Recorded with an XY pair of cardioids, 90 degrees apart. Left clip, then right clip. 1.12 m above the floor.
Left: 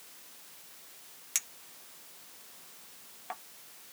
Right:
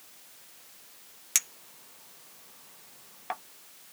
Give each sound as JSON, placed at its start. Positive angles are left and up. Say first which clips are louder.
{"t": 1.4, "sound": "a clink", "louder": "right 6 dB", "azimuth_deg": -55}